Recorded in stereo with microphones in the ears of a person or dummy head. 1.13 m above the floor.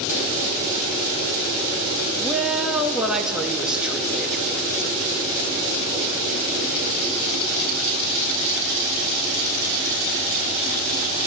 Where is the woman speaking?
5° right (ahead or behind), 2 m.